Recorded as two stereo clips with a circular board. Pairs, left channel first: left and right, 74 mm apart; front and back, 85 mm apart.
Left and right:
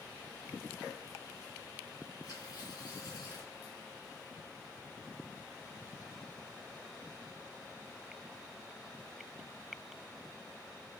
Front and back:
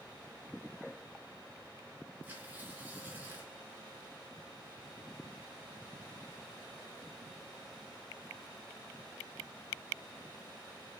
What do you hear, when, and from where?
2.2 s tearing paper: 110° left, 2.5 m